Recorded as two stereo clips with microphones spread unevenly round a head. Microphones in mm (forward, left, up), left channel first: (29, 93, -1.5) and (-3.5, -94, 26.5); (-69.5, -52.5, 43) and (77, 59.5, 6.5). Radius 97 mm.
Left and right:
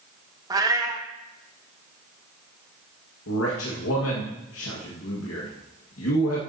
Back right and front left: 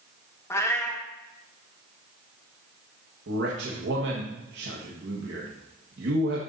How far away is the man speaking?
About 1.6 m.